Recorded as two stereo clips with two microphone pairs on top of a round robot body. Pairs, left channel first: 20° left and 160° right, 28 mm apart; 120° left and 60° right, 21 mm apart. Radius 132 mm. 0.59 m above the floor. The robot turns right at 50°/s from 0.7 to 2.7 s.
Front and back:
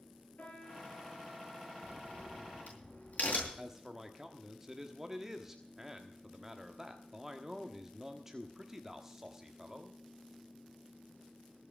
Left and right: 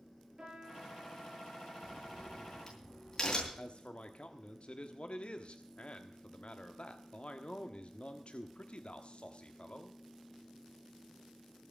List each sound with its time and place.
0.4 s a piano: 10° right, 9.5 m; by 1.3 s 20° left, 9.5 m
1.8 s a crack: 15° left, 8 m; by 3.5 s 60° left, 8 m
3.6 s a man speaking: 125° left, 1.4 m